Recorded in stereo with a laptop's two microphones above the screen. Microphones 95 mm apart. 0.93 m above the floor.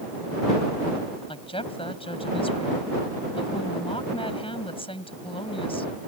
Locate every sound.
1.3 s a woman speaking: 80° left